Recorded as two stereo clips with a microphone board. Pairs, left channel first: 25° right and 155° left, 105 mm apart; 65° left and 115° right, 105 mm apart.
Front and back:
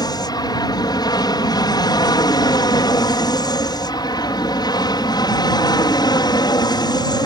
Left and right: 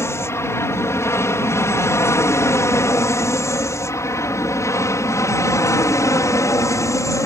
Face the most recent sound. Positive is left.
turn(degrees=15)